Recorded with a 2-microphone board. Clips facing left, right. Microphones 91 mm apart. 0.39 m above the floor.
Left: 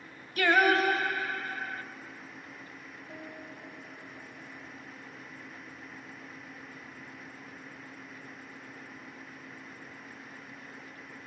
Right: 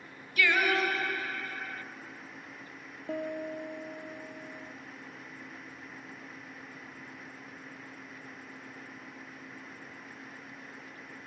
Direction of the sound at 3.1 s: 70° right (ahead or behind).